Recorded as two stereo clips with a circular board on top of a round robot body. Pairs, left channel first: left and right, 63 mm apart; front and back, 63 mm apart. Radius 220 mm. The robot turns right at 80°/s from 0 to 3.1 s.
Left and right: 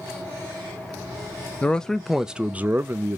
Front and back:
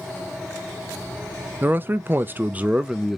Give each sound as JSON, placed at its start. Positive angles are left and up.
{"t": 1.6, "sound": "a man speaking", "azimuth_deg": 145, "distance_m": 0.6}